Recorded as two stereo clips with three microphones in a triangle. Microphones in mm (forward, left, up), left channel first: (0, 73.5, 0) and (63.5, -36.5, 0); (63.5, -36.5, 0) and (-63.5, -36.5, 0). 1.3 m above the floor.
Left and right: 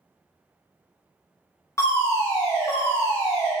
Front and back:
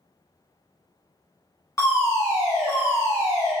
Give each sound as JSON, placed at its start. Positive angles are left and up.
{"t": 1.8, "sound": "a fire alarm", "azimuth_deg": 55, "distance_m": 1.5}